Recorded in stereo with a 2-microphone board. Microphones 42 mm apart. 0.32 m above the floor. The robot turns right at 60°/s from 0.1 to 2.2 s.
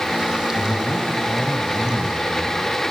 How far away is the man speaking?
About 3 m.